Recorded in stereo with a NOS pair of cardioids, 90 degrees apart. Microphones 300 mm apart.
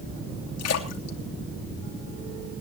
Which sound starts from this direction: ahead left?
A splash, at 0.6 s.